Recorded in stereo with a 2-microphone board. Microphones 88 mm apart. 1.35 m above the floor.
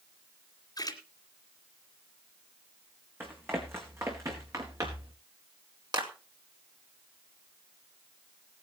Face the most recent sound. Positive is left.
turn(degrees=-50)  # may be behind; listen again after turning